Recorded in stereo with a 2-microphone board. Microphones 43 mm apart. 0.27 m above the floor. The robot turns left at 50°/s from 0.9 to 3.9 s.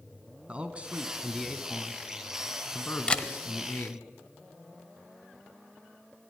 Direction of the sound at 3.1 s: 25° left (ahead or behind).